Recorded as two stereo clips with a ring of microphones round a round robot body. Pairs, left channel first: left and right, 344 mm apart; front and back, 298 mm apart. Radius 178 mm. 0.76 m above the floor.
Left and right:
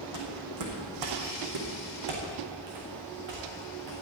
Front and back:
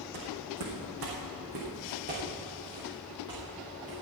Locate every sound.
0.1 s footsteps: 140° right, 3 m; by 3.9 s 95° right, 6 m